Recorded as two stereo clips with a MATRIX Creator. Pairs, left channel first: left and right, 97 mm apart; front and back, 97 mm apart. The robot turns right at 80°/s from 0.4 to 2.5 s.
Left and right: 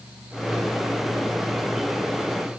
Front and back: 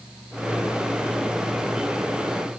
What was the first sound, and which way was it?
Only background noise.